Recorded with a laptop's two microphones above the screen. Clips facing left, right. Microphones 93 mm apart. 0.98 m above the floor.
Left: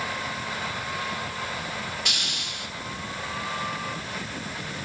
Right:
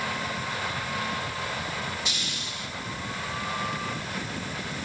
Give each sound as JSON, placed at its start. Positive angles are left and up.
{"t": 2.0, "sound": "a hiss", "side_deg": 60, "distance_m": 1.4}